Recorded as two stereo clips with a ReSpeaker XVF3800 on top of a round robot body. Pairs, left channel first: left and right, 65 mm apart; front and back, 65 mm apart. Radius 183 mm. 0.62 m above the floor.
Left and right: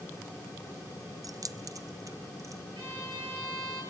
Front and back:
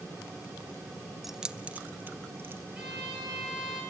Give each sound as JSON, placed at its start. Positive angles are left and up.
{"t": 1.2, "sound": "keys jangling", "azimuth_deg": -95, "distance_m": 0.6}
{"t": 2.8, "sound": "a violin", "azimuth_deg": -105, "distance_m": 7.5}